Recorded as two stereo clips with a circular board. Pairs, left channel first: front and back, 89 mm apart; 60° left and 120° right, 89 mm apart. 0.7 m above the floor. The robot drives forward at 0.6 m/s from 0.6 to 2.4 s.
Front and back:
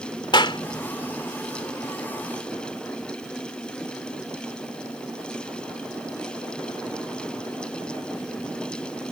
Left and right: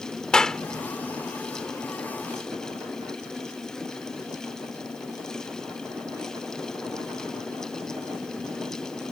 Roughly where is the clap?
Ahead.